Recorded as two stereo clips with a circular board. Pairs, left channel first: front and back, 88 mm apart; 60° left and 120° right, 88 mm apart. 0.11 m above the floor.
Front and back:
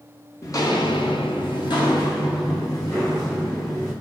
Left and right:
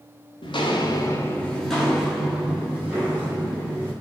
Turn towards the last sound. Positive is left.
turn(degrees=-50)